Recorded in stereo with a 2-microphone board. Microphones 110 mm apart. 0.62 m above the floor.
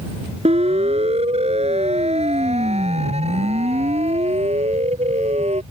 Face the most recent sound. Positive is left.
turn(degrees=-75)  # may be behind; listen again after turning